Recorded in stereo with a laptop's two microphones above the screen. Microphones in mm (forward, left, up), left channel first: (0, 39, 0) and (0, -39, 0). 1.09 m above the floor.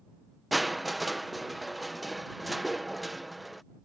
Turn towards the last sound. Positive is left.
turn(degrees=0)  # may be behind; listen again after turning